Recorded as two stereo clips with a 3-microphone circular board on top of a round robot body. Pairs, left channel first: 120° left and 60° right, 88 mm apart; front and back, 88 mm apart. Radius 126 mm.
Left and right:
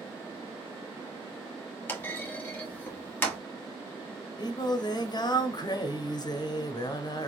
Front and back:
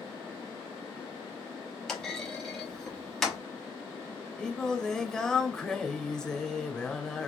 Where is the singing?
80° left, 0.7 m.